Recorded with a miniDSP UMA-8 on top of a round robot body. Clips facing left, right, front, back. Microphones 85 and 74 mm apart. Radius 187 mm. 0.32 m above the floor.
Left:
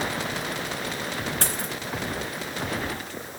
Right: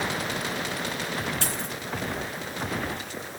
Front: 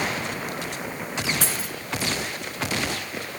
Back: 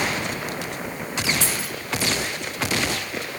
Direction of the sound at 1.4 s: 45° left.